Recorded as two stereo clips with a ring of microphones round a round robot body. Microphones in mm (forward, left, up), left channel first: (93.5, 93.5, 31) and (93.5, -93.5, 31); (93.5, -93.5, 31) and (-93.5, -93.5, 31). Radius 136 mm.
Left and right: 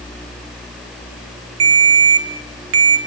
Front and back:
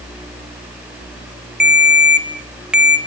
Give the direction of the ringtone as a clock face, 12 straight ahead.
3 o'clock.